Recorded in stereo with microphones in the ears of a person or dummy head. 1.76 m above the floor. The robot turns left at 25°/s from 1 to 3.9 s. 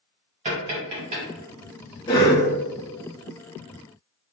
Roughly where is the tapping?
Right.